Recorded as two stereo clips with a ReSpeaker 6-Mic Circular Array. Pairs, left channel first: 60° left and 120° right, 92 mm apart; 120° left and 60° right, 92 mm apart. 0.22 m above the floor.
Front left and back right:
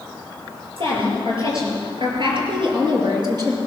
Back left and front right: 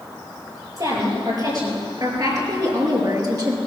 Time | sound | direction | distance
0.8 | a woman speaking | 105° right | 6 m